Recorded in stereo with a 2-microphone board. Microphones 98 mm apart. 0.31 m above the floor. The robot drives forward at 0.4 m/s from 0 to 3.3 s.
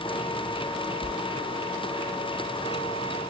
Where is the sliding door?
15° right (ahead or behind), 0.5 m; by 1.2 s 20° right (ahead or behind), 0.5 m.